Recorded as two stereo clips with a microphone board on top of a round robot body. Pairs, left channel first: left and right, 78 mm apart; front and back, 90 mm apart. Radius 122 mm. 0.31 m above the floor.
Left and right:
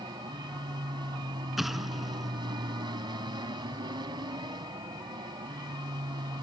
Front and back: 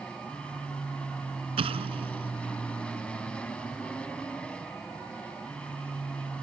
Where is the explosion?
Straight behind.